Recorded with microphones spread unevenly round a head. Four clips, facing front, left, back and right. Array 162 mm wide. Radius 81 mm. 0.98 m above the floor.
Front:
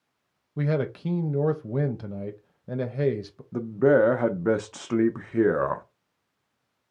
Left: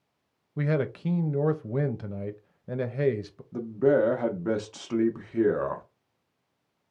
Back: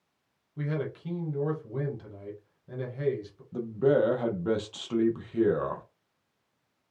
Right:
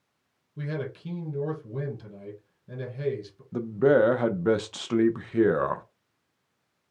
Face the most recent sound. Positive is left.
turn(degrees=-45)